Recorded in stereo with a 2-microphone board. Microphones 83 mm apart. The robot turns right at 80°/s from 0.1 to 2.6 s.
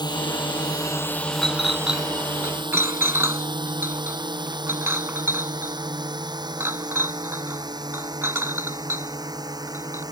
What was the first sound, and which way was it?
A drone, 60° left (ahead or behind).